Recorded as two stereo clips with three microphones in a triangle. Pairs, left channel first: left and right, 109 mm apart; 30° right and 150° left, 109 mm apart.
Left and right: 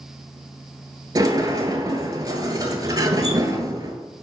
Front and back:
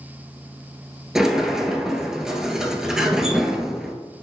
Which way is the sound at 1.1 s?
125° right.